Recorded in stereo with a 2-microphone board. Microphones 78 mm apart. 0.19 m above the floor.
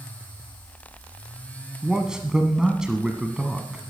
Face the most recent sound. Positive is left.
turn(degrees=-10)  # may be behind; listen again after turning